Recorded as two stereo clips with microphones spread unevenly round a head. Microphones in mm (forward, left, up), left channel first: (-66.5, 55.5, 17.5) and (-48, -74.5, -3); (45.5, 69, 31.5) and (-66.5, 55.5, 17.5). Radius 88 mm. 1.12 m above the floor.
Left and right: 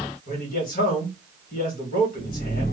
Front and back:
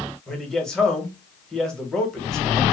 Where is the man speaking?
90° left, 1.3 m.